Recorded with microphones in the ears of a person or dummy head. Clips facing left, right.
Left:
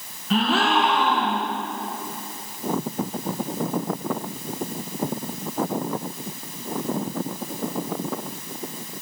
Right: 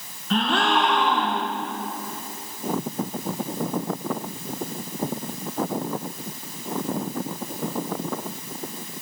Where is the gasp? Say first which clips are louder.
Left 1 dB; 5° left (ahead or behind), 1.9 m.